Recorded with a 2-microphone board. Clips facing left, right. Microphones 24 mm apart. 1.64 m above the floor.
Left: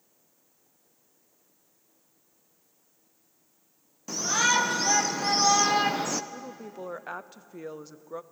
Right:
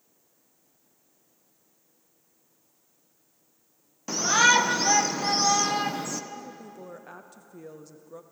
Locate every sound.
4.1 s a shout: 30° right (ahead or behind), 1.3 m; by 6.2 s 35° left (ahead or behind), 0.7 m
6.3 s a woman speaking: 35° left (ahead or behind), 0.7 m